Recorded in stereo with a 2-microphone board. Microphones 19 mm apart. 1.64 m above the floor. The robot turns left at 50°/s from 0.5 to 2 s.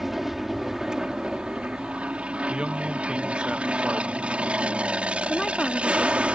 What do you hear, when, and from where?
0.0 s an aircraft: 15° right; by 6.4 s 90° right
2.5 s a man speaking: 55° right (ahead or behind)
5.3 s a woman speaking: 25° left (ahead or behind)